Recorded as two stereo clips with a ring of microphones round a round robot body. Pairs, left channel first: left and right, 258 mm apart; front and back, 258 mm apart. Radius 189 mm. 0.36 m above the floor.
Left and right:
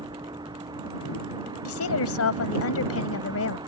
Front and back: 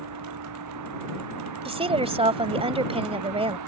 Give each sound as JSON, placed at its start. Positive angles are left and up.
{"t": 0.0, "sound": "a vehicle", "azimuth_deg": -170}
{"t": 1.6, "sound": "a woman speaking", "azimuth_deg": 115}